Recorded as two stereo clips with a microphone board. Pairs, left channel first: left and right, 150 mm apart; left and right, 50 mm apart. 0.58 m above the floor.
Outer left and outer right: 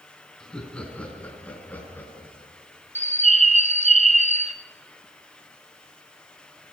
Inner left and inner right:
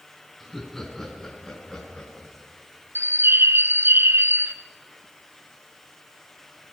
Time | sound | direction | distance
0.4 | laughter | 5° left (ahead or behind) | 5.5 m
3.0 | a bird | 55° right (ahead or behind) | 1.1 m